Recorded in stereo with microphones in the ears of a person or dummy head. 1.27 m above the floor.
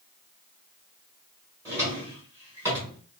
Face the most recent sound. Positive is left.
turn(degrees=-15)  # may be behind; listen again after turning